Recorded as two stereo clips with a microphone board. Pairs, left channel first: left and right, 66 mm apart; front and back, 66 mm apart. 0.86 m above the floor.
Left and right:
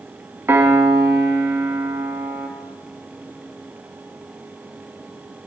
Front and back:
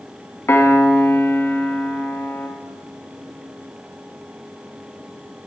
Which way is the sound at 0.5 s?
45° right.